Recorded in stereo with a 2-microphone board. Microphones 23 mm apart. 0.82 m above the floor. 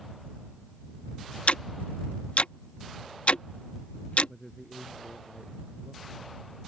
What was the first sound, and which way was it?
Ticking, 70° left (ahead or behind).